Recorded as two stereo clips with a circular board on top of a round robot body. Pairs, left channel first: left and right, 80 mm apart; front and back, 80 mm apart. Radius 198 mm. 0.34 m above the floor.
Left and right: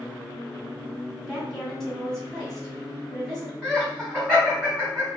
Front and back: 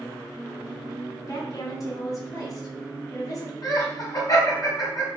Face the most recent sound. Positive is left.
turn(degrees=0)